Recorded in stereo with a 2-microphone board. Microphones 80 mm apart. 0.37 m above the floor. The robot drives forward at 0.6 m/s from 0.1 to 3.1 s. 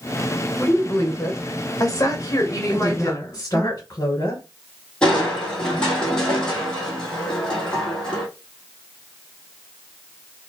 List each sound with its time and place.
0.6 s a woman speaking: 30° left (ahead or behind), 1.5 m; by 3.7 s 40° left (ahead or behind), 1.1 m
2.7 s a woman speaking: 45° left (ahead or behind), 2 m; by 4.4 s 40° left (ahead or behind), 2.5 m
5.0 s crushing: 10° left (ahead or behind), 2 m